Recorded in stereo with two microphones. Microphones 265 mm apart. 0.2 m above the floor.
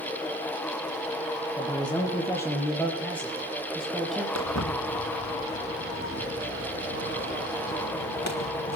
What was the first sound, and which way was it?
A man speaking, 15° left (ahead or behind).